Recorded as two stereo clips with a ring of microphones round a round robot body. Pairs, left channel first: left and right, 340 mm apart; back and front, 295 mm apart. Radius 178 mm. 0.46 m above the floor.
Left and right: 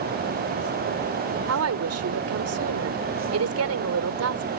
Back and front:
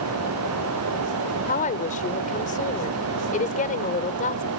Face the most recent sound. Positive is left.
turn(degrees=-120)